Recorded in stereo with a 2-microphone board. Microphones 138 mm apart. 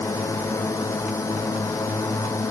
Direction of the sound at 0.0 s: 20° left (ahead or behind).